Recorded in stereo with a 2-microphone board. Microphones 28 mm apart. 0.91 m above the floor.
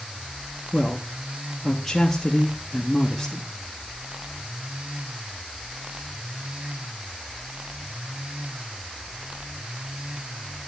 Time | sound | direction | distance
0.7 | a man speaking | 15° left (ahead or behind) | 0.9 m